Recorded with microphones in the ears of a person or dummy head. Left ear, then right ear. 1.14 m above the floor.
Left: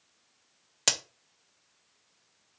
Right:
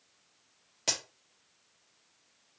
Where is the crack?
50° left (ahead or behind), 0.6 m.